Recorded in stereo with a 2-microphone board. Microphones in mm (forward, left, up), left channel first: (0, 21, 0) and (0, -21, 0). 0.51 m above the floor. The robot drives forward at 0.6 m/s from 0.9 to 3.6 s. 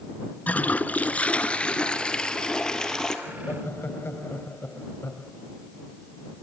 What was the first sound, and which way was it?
A toilet flushing, 40° left (ahead or behind).